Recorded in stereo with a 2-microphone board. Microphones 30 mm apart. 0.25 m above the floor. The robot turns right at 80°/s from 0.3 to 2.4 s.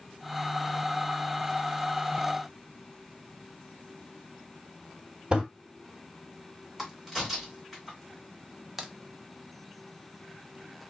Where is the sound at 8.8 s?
10° right (ahead or behind), 0.6 m.